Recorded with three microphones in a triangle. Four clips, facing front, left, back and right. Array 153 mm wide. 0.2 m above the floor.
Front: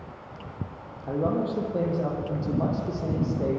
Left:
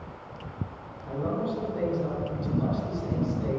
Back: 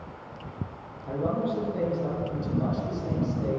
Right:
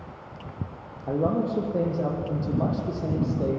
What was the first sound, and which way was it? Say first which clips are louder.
A man speaking: right 5 dB, front 2 dB; 70° right.